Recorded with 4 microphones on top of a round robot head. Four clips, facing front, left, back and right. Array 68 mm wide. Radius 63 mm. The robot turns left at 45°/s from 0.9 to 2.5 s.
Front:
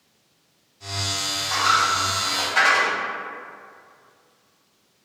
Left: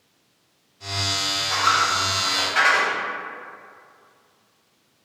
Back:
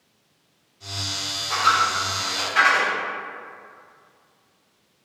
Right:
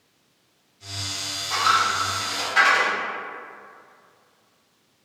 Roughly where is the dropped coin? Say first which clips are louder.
Even, even; behind.